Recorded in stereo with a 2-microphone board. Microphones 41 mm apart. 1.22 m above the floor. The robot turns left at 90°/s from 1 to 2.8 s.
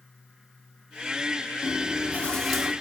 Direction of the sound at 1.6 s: 80° left.